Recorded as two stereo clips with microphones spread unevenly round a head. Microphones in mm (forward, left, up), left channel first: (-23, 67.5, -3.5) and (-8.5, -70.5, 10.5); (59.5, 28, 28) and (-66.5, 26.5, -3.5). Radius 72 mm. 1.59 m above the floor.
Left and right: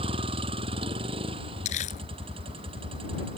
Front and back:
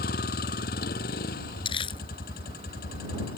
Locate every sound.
0.0 s a vehicle: 30° right
1.6 s crumpling: 50° left